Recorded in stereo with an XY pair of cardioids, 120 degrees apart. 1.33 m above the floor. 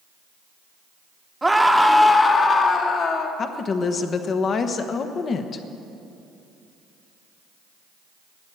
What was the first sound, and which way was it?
A scream, 15° right.